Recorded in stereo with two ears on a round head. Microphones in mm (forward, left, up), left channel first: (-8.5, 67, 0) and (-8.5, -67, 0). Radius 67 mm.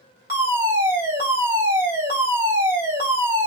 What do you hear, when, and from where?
0.3 s a fire alarm: 20° right (ahead or behind), 2 m